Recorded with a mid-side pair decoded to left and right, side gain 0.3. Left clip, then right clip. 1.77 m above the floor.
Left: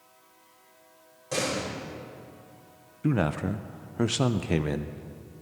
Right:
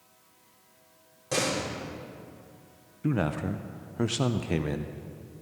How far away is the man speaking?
About 0.6 m.